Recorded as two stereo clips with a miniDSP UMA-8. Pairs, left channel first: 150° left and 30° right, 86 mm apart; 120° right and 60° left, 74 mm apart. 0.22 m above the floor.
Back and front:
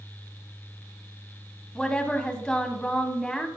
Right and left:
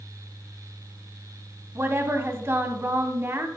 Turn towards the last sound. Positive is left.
turn(degrees=75)